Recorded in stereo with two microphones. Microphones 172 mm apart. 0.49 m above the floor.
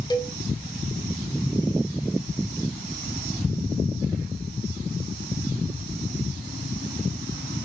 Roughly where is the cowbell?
Left.